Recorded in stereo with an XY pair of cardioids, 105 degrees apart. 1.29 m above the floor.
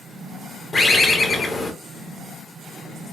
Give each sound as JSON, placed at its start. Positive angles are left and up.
{"t": 0.7, "sound": "a bird", "azimuth_deg": 30, "distance_m": 0.7}